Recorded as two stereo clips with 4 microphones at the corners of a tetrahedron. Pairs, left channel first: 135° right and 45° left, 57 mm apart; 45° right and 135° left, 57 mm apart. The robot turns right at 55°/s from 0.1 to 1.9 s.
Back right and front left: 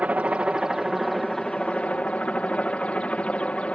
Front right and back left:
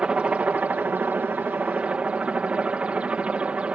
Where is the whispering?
I don't hear whispering.